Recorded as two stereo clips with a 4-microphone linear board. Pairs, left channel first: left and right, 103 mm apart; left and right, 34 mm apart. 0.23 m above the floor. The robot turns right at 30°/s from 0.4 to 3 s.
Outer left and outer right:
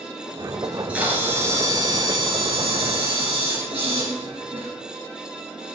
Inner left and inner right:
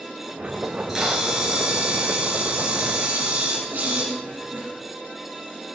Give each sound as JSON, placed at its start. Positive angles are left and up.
{"t": 0.6, "sound": "a camera shutter", "azimuth_deg": -175, "distance_m": 4.0}